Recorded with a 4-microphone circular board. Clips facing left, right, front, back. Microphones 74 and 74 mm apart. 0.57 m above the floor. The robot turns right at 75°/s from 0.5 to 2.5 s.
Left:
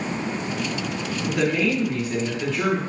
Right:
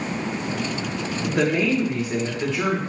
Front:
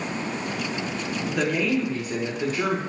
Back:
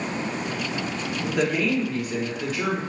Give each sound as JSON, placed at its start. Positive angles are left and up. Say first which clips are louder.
{"t": 1.2, "sound": "a woman speaking", "louder": "right 1 dB, back 1 dB", "azimuth_deg": -100, "distance_m": 1.2}